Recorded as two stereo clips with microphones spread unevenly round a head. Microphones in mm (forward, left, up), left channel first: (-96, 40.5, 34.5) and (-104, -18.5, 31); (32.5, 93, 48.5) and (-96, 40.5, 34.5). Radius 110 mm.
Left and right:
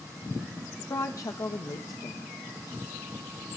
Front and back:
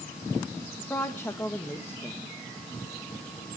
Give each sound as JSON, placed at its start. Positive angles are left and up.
{"t": 0.8, "sound": "a woman speaking", "azimuth_deg": 95, "distance_m": 1.5}